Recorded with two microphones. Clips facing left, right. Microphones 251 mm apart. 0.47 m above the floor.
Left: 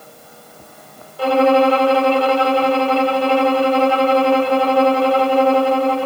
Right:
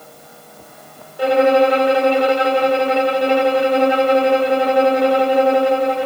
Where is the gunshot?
No gunshot in this recording.